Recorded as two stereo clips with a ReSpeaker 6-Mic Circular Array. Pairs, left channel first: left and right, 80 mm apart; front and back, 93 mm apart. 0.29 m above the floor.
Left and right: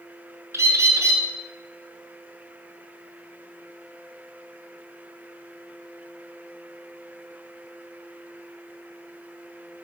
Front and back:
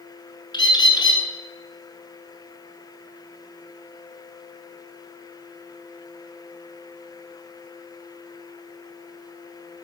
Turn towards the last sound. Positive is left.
turn(degrees=-35)